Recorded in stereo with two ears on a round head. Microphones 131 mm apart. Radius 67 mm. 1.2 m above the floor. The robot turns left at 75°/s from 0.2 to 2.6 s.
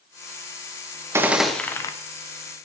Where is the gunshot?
155° right, 0.6 m; by 1.9 s 145° left, 0.6 m.